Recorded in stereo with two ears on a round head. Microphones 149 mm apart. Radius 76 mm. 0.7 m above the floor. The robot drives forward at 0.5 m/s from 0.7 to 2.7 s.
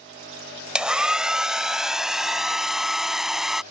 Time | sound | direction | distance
0.8 | a hair dryer | 5° right (ahead or behind) | ?